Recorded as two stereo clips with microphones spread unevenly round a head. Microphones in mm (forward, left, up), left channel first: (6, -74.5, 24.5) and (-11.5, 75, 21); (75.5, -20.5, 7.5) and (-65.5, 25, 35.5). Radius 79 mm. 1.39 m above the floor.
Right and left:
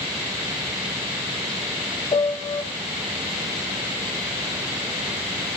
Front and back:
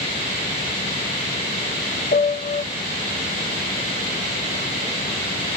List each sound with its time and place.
2.1 s a piano: 40° right, 0.7 m